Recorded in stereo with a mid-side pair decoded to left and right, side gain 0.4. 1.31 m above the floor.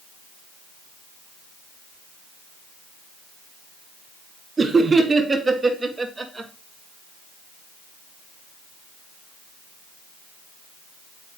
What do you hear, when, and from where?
4.6 s laughter: 35° right, 3 m; by 6.5 s 10° right, 2.5 m